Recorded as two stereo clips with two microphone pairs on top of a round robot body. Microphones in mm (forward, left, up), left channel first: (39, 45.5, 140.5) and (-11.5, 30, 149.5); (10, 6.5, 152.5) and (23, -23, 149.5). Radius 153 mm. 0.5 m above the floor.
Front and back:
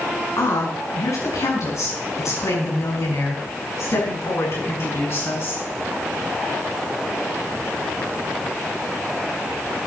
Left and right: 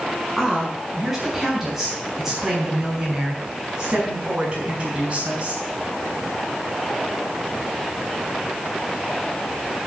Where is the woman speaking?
20° left, 7 m; by 5.6 s 15° right, 5.5 m.